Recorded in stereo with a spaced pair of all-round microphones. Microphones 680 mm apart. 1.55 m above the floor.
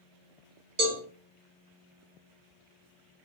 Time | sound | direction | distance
0.8 | a cowbell | 65° right (ahead or behind) | 0.9 m